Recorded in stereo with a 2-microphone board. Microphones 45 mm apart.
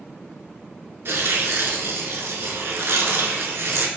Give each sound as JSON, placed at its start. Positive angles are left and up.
{"t": 1.1, "sound": "tearing paper", "side_deg": -60, "distance_m": 0.6}